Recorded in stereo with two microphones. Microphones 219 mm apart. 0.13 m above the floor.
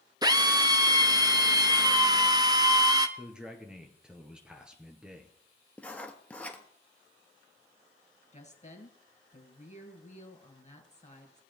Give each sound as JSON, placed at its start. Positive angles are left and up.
{"t": 0.2, "sound": "a drill", "side_deg": -20, "distance_m": 0.6}
{"t": 3.2, "sound": "a man speaking", "side_deg": -5, "distance_m": 1.8}
{"t": 5.8, "sound": "writing", "side_deg": 5, "distance_m": 1.1}
{"t": 8.3, "sound": "a woman speaking", "side_deg": 35, "distance_m": 2.0}